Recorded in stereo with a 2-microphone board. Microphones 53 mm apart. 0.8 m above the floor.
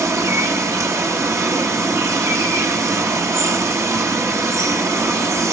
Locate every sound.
0.0 s running water: 65° right (ahead or behind), 1.5 m